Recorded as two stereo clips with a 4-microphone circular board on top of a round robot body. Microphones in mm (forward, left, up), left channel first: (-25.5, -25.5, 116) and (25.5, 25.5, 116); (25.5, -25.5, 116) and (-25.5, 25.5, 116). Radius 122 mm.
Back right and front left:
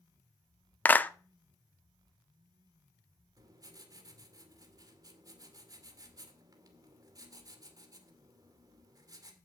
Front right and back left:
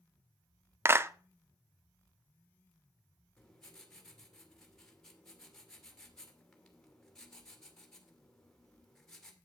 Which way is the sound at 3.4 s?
40° left.